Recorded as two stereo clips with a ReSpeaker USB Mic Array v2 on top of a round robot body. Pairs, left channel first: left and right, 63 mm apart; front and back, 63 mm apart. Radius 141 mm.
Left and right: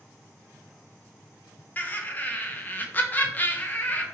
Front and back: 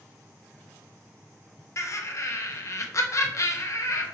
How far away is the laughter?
About 0.7 m.